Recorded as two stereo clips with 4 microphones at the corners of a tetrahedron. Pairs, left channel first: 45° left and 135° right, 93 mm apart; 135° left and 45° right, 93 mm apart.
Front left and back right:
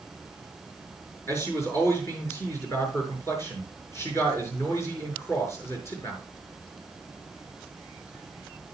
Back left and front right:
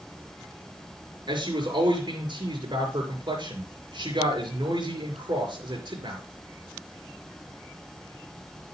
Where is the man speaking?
15° right, 5 m.